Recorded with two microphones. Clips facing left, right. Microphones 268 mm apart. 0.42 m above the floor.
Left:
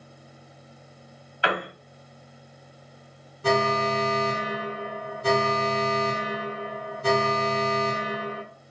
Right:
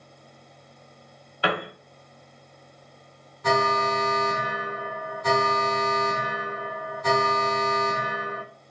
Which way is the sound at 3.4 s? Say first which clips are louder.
Left 1 dB; 35° left (ahead or behind).